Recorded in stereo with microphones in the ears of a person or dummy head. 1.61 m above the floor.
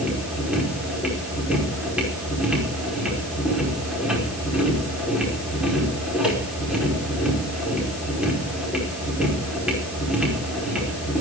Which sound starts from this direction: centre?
A machine running, at 0.0 s.